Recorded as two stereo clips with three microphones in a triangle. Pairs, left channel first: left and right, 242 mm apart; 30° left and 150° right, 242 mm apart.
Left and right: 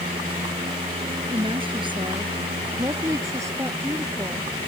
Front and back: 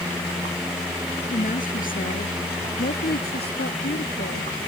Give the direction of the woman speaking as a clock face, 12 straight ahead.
1 o'clock.